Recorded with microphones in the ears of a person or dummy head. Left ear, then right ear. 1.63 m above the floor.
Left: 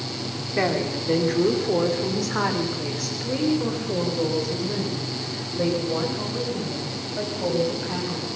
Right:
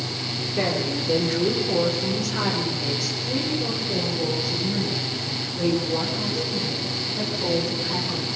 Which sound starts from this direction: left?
A woman speaking, at 0.6 s.